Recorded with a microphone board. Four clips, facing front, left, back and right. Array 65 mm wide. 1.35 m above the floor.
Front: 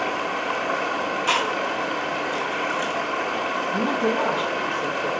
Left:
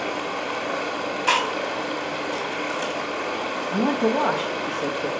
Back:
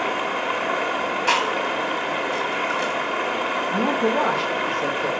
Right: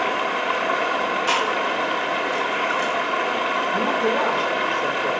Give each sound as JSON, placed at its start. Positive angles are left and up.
{"t": 0.0, "sound": "running water", "azimuth_deg": -110, "distance_m": 1.2}
{"t": 1.3, "sound": "chewing", "azimuth_deg": 140, "distance_m": 2.5}
{"t": 3.7, "sound": "a man speaking", "azimuth_deg": 135, "distance_m": 1.4}